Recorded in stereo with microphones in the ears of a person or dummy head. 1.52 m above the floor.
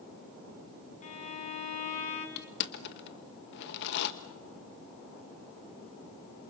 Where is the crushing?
55° left (ahead or behind), 1.4 m.